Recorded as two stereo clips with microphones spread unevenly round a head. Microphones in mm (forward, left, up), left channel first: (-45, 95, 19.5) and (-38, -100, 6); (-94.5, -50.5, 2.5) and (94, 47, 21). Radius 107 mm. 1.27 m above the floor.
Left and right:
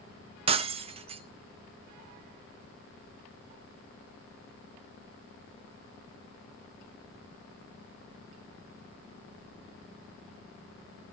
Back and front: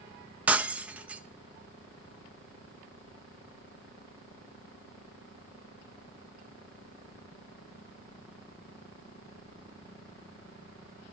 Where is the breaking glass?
45° right, 0.5 m.